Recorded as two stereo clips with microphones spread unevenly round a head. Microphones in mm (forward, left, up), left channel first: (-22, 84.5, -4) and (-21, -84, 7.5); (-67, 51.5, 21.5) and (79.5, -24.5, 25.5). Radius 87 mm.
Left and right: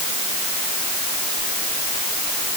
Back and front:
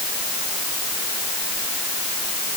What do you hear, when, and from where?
Only background noise.